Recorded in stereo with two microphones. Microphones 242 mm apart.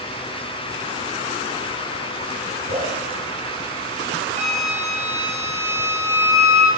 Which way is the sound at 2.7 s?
35° right (ahead or behind).